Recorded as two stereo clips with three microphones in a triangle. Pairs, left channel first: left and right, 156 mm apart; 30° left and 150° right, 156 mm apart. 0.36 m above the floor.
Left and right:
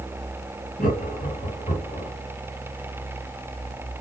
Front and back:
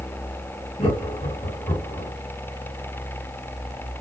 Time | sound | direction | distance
0.8 | laughter | 70° left | 2 m